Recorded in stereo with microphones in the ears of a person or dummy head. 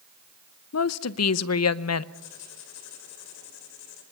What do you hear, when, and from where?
0.7 s a woman speaking: 70° left (ahead or behind), 0.7 m
2.1 s writing: 75° left (ahead or behind), 4 m